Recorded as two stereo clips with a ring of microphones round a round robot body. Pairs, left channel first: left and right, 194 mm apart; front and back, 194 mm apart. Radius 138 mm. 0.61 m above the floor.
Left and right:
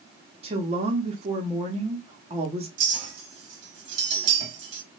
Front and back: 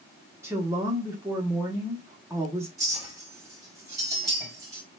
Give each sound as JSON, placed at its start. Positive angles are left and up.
{"t": 0.4, "sound": "a woman speaking", "azimuth_deg": -115, "distance_m": 0.7}
{"t": 2.8, "sound": "a clink", "azimuth_deg": -105, "distance_m": 0.9}